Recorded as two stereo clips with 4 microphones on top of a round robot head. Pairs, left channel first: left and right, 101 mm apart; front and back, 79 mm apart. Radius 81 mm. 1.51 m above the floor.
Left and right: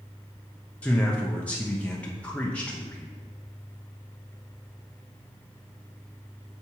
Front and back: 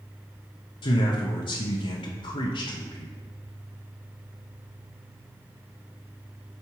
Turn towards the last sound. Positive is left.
turn(degrees=10)